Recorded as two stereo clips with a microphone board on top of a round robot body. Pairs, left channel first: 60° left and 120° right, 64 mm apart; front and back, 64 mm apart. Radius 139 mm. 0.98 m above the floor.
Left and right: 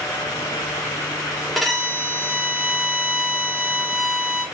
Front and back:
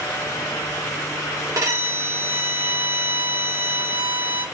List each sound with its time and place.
1.6 s a violin: 145° left, 1.5 m